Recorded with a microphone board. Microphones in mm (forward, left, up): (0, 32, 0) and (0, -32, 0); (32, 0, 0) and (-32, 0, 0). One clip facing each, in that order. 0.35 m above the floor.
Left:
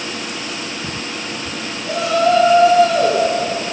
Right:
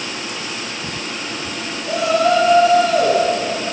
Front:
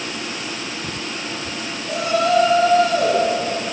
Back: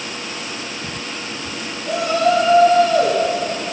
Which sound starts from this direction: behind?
A shout, at 1.8 s.